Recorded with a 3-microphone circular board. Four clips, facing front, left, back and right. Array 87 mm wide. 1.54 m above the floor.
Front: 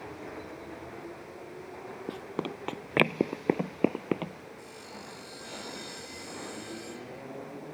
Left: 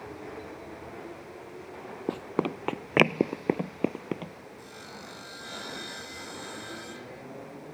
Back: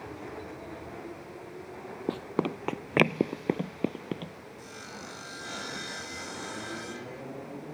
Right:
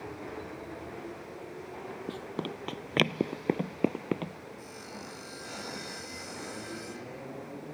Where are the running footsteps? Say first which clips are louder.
Left 9 dB, back 6 dB; 125° left; by 4.5 s 20° right.